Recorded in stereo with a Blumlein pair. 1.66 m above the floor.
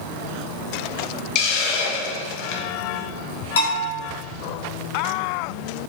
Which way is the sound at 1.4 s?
35° left.